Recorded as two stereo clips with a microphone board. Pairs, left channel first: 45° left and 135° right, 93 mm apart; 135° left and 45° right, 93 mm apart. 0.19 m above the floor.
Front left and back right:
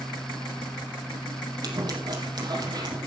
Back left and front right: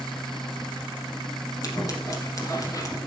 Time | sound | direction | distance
1.6 | scissors | 175° right | 4 m